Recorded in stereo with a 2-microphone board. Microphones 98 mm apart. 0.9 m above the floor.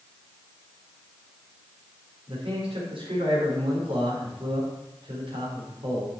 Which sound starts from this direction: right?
A man speaking, at 2.3 s.